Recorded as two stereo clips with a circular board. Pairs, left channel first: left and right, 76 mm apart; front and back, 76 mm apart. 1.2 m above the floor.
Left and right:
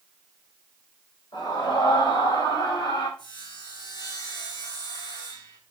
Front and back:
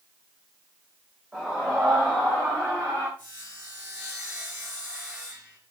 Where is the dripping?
I don't hear dripping.